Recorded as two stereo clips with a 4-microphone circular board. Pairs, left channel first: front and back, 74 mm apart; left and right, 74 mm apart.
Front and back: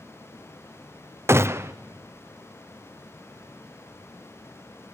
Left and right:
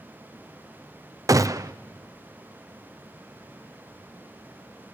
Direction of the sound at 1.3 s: 130° right.